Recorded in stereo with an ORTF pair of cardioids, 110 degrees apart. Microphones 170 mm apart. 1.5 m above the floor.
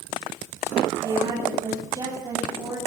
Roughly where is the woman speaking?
Ahead right.